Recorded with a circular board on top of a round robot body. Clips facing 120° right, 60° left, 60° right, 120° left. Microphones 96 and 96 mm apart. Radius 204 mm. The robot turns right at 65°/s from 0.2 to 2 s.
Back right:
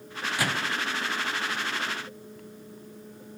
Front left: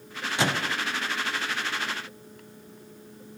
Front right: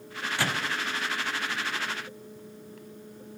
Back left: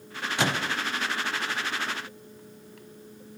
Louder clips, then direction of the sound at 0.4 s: Front left 3 dB, back left 3 dB; 80° left.